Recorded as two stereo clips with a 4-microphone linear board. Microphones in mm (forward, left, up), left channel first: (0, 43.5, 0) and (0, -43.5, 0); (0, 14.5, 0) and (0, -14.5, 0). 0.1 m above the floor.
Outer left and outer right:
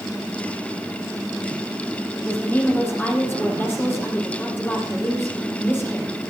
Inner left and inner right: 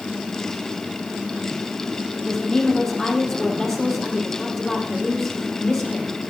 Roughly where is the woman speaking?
Left.